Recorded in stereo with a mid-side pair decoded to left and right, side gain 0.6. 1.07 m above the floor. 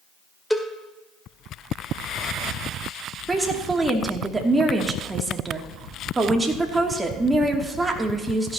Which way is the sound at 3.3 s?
15° right.